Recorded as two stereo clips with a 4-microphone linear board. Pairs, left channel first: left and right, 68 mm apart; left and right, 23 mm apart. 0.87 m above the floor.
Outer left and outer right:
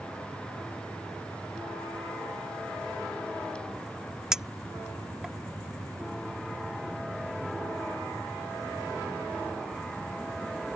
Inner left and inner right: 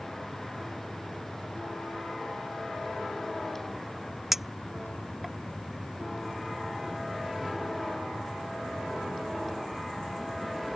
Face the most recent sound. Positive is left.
turn(degrees=-10)  # may be behind; listen again after turning